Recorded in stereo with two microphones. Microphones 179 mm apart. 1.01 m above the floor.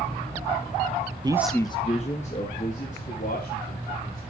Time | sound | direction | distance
1.2 | a man speaking | 25° right (ahead or behind) | 0.6 m